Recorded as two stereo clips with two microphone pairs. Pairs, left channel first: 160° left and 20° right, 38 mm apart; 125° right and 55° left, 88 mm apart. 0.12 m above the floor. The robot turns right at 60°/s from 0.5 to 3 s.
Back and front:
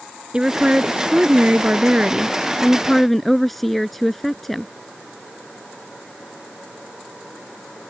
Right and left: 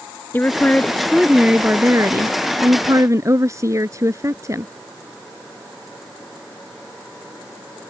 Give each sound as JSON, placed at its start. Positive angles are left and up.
{"t": 0.3, "sound": "a woman speaking", "azimuth_deg": -70}